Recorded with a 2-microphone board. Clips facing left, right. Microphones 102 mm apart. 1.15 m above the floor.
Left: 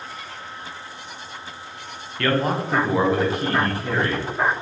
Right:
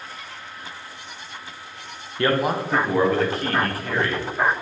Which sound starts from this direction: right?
A man speaking, at 2.2 s.